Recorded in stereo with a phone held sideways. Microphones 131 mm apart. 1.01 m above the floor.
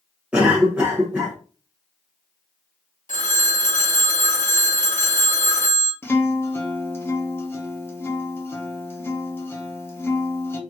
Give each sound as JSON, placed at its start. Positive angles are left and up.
{"t": 0.3, "sound": "a cough", "side_deg": -10, "distance_m": 0.9}
{"t": 3.1, "sound": "a phone ringing", "side_deg": 75, "distance_m": 0.8}
{"t": 6.0, "sound": "a guitar", "side_deg": 20, "distance_m": 0.7}